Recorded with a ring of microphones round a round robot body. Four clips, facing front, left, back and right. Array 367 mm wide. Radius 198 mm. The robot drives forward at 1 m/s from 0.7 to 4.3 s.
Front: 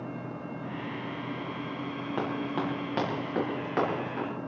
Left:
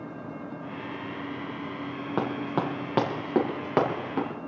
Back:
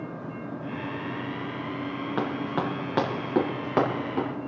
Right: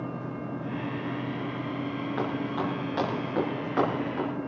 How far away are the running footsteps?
About 3.5 m.